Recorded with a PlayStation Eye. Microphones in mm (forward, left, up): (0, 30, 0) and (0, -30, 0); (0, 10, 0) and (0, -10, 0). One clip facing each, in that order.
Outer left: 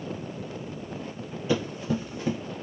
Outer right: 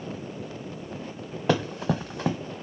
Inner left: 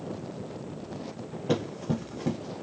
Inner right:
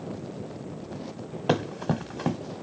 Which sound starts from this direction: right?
Running footsteps, at 1.5 s.